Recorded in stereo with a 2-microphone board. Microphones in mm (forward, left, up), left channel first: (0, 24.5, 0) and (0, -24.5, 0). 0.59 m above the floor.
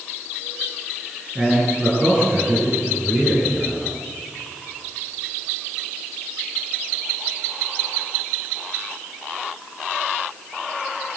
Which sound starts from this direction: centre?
A man speaking, at 1.4 s.